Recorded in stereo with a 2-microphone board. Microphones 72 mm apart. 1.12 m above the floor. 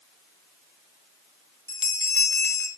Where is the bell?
40° left (ahead or behind), 5 m.